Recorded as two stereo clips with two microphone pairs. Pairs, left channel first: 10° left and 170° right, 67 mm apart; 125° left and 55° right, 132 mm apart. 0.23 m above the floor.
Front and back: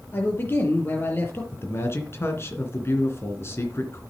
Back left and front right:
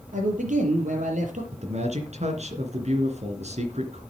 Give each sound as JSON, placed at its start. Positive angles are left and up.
{"t": 0.1, "sound": "a man speaking", "azimuth_deg": -45, "distance_m": 5.0}
{"t": 1.5, "sound": "a man speaking", "azimuth_deg": -35, "distance_m": 2.5}